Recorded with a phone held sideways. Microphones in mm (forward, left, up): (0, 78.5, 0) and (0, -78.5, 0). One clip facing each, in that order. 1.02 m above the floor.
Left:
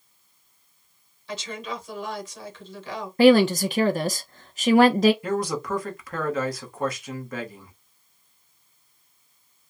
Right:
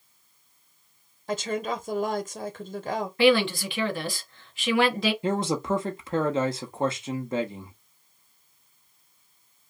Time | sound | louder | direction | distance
1.3 | a woman speaking | right 5 dB | 50° right (ahead or behind) | 0.9 m
3.2 | a woman speaking | left 6 dB | 45° left (ahead or behind) | 0.7 m
5.2 | a man speaking | right 1 dB | 25° right (ahead or behind) | 0.9 m